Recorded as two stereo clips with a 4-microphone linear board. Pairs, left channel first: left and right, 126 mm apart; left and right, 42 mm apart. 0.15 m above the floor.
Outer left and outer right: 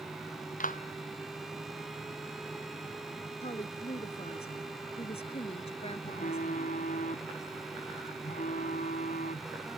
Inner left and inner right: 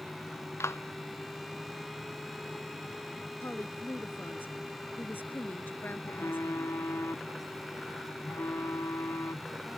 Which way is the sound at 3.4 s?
50° left (ahead or behind).